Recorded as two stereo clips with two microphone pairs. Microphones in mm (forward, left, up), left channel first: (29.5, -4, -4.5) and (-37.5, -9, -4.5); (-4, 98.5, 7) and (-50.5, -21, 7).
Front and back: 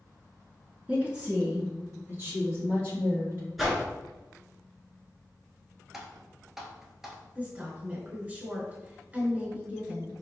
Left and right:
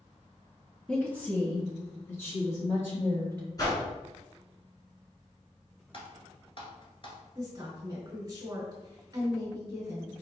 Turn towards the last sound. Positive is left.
turn(degrees=-130)